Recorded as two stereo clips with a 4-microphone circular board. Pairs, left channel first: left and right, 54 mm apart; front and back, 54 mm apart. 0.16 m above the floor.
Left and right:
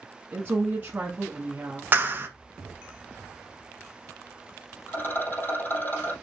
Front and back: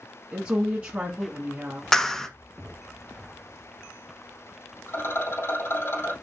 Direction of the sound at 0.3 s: 125° right.